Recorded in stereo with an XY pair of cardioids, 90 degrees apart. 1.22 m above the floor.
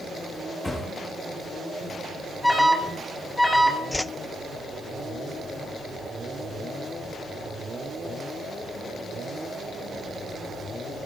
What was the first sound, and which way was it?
A thud, 20° left.